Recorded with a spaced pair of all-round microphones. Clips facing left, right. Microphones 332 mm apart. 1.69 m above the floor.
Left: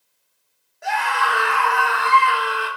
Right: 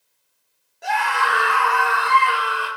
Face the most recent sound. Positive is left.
turn(degrees=30)  # may be behind; listen again after turning